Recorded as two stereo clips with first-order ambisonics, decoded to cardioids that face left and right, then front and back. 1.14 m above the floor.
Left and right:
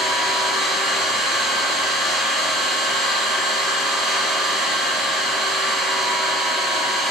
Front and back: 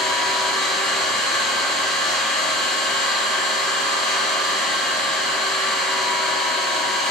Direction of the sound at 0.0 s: 15° right.